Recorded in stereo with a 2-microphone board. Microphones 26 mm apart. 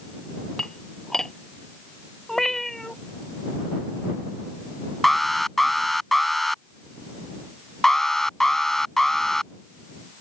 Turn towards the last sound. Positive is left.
turn(degrees=20)  # may be behind; listen again after turning